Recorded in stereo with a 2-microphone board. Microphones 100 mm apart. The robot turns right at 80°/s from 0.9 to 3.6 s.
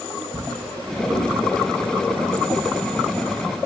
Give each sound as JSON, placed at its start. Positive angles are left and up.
{"t": 0.3, "sound": "a drawer", "side_deg": 5, "distance_m": 1.7}